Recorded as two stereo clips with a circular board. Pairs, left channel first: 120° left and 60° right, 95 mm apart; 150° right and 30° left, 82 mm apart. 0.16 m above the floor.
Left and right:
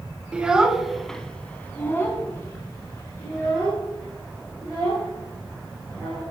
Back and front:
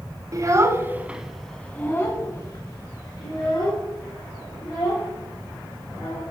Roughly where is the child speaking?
Ahead.